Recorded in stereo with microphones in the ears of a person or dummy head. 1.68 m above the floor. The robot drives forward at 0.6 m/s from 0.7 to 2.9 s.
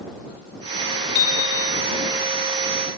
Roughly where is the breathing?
No breathing in this recording.